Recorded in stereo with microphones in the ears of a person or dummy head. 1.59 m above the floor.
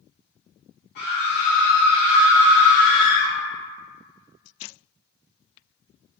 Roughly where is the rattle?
I don't hear a rattle.